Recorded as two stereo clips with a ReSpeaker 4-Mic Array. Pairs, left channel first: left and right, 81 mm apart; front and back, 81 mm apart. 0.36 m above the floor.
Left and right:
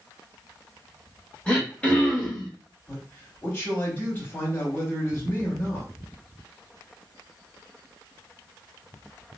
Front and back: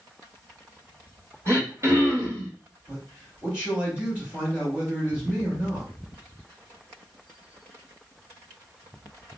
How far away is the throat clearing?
About 0.9 m.